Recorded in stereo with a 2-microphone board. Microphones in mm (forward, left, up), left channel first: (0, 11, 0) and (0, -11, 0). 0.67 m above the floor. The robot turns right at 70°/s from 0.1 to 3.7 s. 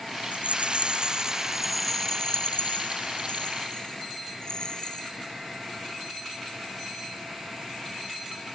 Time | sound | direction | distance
0.3 | a rattle | 80° right | ?